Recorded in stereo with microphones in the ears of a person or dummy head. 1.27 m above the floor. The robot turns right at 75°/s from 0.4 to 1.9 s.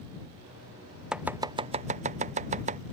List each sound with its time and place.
1.1 s chopping: 5° right (ahead or behind); by 2.8 s 35° right (ahead or behind)